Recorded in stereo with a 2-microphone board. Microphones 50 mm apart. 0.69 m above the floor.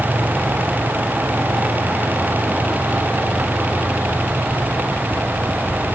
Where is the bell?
I don't hear a bell.